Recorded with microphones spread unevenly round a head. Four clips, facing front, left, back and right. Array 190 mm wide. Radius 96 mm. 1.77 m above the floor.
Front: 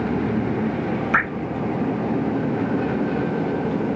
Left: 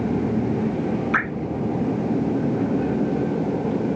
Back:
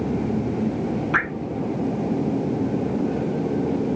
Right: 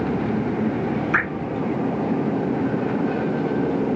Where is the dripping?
5° left, 4 m.